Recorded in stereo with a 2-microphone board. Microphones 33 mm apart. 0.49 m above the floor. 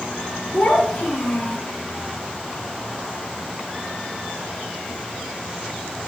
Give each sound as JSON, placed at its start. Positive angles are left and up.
{"t": 0.5, "sound": "a child speaking", "side_deg": 30, "distance_m": 3.5}